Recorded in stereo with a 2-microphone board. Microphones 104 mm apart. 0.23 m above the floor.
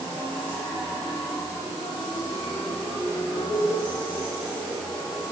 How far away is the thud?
No thud in this recording.